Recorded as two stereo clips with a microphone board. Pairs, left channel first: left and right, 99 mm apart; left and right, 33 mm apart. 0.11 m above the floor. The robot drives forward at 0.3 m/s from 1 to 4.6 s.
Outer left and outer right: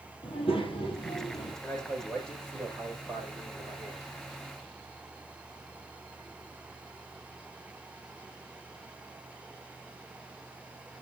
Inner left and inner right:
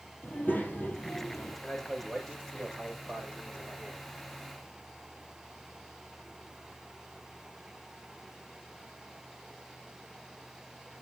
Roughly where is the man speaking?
Centre.